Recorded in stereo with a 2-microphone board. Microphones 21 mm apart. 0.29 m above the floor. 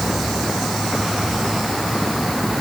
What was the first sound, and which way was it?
Only background noise.